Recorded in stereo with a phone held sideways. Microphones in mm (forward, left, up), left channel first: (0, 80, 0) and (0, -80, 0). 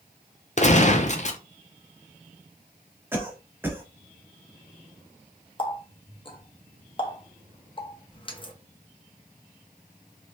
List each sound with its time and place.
0.6 s a gunshot: 50° left (ahead or behind), 0.5 m
3.1 s a cough: 15° right (ahead or behind), 1.1 m
5.6 s a running tap: 35° left (ahead or behind), 0.7 m